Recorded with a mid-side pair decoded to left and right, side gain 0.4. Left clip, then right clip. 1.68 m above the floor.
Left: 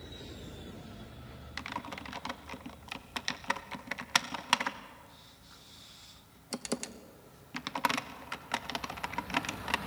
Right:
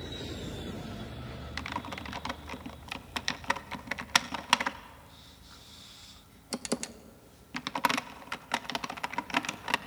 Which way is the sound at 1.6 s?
25° right.